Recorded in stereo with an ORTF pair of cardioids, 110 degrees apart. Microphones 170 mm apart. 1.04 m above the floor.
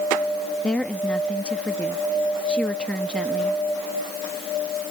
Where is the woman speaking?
5° left.